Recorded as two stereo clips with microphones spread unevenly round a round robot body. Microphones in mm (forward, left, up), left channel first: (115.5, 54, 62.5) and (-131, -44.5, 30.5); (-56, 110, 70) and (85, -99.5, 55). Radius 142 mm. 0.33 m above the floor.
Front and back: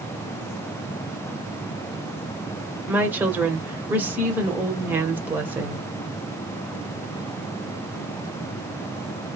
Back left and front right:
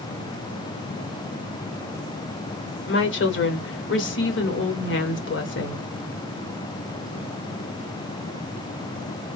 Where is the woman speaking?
130° left, 1.2 m.